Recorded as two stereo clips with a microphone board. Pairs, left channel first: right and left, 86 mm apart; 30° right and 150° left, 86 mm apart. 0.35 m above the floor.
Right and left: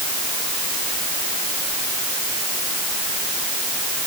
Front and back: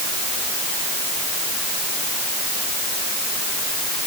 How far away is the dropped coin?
No dropped coin in this recording.